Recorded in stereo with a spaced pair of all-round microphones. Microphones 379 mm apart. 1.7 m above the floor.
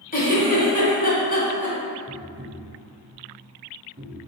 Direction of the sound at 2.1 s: 25° right (ahead or behind).